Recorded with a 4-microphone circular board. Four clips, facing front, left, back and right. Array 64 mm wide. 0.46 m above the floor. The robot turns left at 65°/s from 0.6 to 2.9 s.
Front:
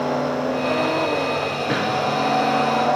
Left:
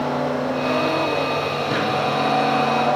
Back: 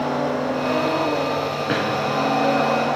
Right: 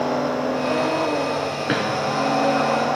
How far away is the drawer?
About 3.5 m.